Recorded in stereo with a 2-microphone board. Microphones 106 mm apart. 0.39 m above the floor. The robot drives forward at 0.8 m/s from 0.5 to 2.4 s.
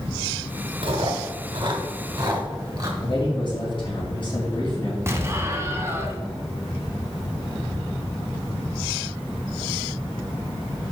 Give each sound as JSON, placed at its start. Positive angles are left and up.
{"t": 0.8, "sound": "chewing", "side_deg": -60, "distance_m": 1.1}
{"t": 3.0, "sound": "a man speaking", "side_deg": 50, "distance_m": 3.5}
{"t": 5.1, "sound": "an explosion", "side_deg": -25, "distance_m": 1.0}